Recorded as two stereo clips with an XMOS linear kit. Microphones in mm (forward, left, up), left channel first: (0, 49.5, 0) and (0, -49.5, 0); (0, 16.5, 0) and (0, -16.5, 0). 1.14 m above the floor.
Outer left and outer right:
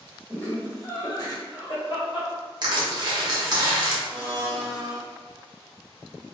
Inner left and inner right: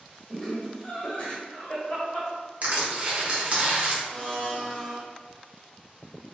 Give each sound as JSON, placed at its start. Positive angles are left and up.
{"t": 0.3, "sound": "laughter", "side_deg": 20, "distance_m": 1.6}
{"t": 2.6, "sound": "crushing", "side_deg": -45, "distance_m": 1.0}
{"t": 4.0, "sound": "a blender", "side_deg": 30, "distance_m": 1.3}